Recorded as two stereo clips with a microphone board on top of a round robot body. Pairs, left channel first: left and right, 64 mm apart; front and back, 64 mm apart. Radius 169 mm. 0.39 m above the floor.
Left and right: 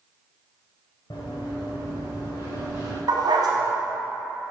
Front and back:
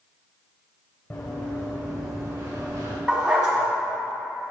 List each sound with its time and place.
1.1 s running footsteps: 75° left, 2 m; by 3.0 s 135° left, 2.5 m
3.1 s a dog barking: 105° right, 1.5 m